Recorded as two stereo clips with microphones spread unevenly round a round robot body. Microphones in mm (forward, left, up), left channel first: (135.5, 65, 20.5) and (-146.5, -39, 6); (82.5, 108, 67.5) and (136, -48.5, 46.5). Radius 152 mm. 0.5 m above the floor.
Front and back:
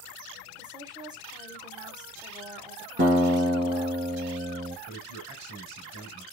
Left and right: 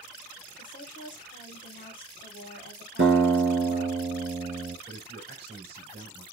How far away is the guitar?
About 2 m.